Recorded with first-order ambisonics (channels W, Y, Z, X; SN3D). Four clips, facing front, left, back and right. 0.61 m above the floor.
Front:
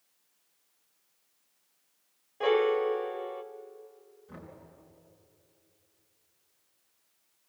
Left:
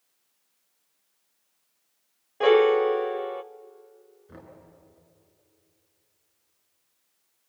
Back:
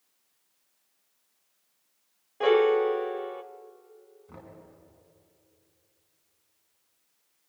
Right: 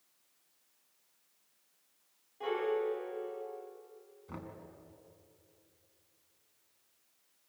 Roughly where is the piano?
Left.